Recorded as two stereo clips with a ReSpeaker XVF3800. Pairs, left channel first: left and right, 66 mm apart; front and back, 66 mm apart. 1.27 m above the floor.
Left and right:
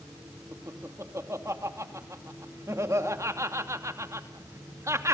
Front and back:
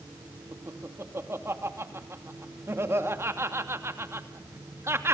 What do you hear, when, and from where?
0.5 s laughter: 130° right, 2.5 m